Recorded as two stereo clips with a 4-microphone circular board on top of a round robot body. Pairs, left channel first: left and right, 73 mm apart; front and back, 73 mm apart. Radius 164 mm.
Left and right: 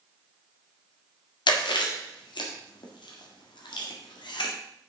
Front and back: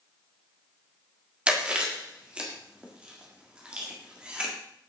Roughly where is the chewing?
Left.